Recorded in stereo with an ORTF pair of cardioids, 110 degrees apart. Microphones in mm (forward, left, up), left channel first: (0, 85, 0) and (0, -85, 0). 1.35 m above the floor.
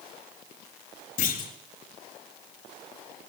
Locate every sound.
1.2 s a clunk: 55° left, 3 m